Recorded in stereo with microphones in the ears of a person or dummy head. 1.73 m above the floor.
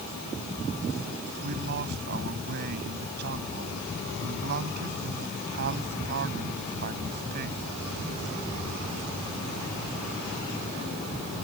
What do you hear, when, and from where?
1.4 s a man speaking: 60° right (ahead or behind)